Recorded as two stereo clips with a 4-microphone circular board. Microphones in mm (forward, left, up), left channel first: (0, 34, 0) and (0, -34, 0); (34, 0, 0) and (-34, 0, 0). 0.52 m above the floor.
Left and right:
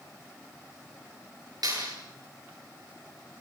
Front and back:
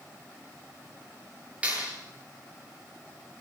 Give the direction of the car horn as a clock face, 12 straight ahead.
I don't hear a car horn.